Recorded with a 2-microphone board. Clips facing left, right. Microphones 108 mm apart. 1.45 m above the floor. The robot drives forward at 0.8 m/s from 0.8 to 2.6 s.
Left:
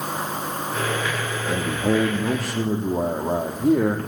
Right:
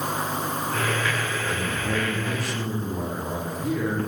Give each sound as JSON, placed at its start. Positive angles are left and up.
{"t": 1.5, "sound": "a man speaking", "side_deg": 60, "distance_m": 3.0}